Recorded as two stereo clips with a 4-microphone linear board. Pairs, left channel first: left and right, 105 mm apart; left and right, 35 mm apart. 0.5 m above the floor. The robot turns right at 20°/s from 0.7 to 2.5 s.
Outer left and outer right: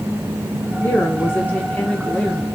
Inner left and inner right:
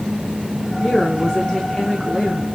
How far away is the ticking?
I don't hear ticking.